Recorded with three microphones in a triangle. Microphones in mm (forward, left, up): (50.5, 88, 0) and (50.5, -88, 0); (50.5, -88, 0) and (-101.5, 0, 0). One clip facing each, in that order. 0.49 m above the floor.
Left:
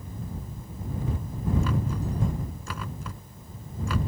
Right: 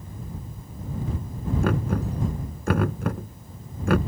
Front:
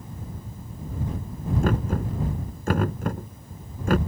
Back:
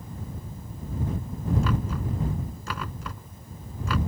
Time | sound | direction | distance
1.6 | knocking | 65° right | ?